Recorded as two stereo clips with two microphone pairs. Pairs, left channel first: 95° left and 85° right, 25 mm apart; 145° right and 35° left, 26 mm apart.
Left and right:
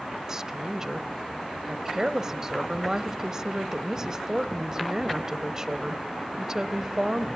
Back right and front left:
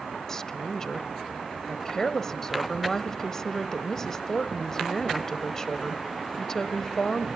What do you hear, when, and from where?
0.3 s a woman speaking: 115° right, 1.0 m